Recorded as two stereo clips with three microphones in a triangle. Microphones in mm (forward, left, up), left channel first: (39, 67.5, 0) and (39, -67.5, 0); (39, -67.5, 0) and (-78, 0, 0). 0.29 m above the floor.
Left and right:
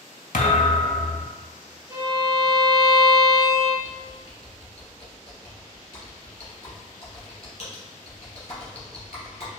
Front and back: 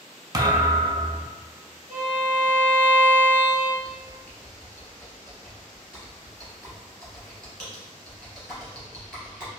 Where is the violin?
140° left, 1.3 m.